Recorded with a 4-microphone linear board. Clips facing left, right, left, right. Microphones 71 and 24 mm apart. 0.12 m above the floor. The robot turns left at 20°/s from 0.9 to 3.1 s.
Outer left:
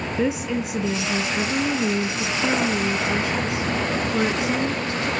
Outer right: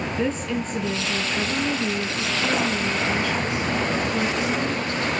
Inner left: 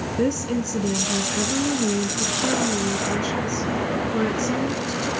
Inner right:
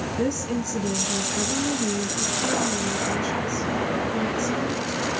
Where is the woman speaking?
10° left (ahead or behind), 1.4 m; by 5.1 s 20° left (ahead or behind), 1.4 m.